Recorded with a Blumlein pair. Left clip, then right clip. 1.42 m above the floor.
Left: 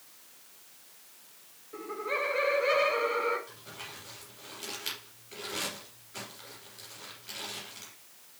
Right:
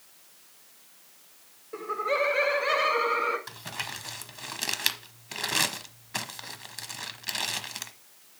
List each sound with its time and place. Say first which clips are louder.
1.7 s laughter: right 6 dB; 65° right, 1.0 m; by 3.4 s 75° right, 2.5 m
3.5 s crumpling: right 9 dB; 55° right, 1.0 m